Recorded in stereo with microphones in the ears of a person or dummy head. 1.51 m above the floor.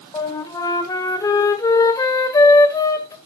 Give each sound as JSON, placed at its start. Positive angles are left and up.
{"t": 0.1, "sound": "a flute", "side_deg": 25, "distance_m": 1.7}